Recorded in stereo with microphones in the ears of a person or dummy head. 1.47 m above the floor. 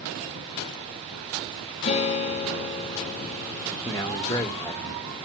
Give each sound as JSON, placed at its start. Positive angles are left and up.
{"t": 1.8, "sound": "a guitar", "side_deg": 30, "distance_m": 2.0}
{"t": 3.9, "sound": "a man speaking", "side_deg": 15, "distance_m": 0.9}